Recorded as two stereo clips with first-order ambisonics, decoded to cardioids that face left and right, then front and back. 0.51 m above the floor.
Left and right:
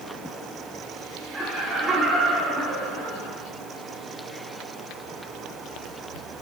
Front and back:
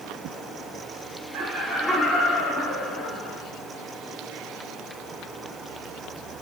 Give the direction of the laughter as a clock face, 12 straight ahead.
5 o'clock.